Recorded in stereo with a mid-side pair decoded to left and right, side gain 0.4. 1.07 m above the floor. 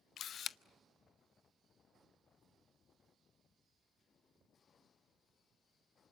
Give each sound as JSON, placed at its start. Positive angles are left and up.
{"t": 0.2, "sound": "a camera shutter", "azimuth_deg": 65, "distance_m": 0.5}